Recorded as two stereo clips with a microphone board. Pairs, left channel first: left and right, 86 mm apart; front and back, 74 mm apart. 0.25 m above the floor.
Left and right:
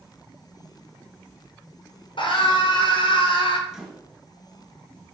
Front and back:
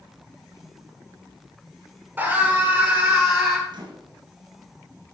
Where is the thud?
No thud in this recording.